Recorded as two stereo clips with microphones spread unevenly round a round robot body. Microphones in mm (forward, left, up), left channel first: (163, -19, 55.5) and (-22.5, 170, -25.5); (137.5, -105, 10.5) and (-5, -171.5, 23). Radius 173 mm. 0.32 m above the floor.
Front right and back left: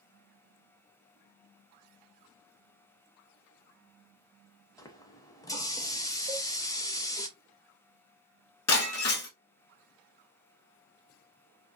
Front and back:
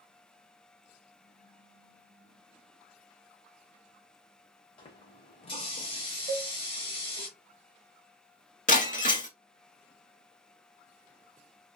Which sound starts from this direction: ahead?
Breaking glass, at 8.7 s.